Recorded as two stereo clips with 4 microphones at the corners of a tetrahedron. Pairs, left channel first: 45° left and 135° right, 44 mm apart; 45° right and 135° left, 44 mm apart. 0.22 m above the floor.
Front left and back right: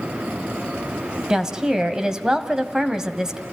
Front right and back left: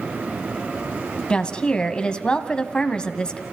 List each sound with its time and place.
1.3 s a woman speaking: 80° right, 1.6 m